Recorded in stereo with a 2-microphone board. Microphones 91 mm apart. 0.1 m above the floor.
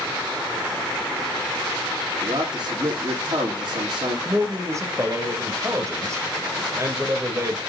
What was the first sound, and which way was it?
A man speaking, 60° right (ahead or behind).